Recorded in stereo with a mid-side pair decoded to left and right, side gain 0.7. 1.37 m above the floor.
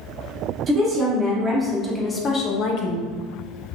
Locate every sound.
0.7 s a woman speaking: 35° right, 1.5 m; by 3.1 s 70° left, 1.1 m